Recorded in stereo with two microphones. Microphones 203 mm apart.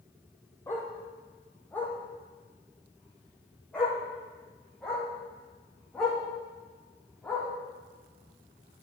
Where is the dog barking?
10° left (ahead or behind), 3 m; by 7.5 s centre (ahead or behind), 8 m.